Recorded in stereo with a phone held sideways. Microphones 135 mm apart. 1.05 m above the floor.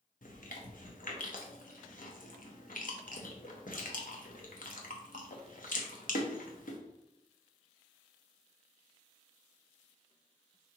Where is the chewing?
85° left, 0.8 m.